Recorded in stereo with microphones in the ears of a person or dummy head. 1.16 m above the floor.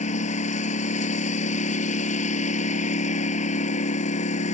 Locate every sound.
0.0 s a lawn mower: 40° left (ahead or behind)